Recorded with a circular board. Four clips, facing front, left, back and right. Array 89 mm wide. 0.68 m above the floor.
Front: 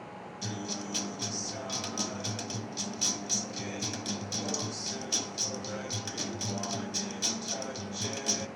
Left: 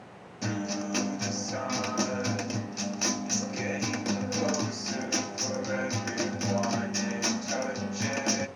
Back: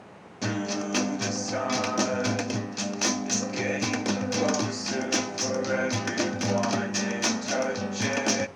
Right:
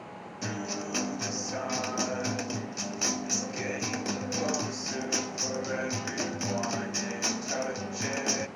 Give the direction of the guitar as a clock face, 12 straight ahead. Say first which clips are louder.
Left 3 dB, back 10 dB; 6 o'clock.